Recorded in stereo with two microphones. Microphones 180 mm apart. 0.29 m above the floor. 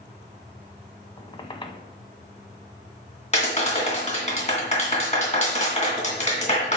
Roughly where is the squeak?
Left.